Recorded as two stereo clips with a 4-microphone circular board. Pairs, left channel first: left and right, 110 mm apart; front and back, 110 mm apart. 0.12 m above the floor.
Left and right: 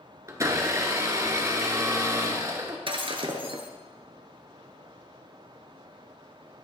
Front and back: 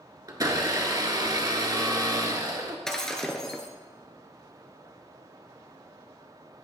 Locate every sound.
0.3 s a blender: 140° right, 1.3 m
2.9 s breaking glass: 85° right, 1.2 m